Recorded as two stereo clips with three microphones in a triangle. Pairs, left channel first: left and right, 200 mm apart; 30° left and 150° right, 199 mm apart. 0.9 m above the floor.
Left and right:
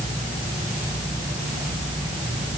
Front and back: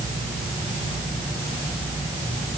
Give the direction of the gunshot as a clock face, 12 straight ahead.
No gunshot in this recording.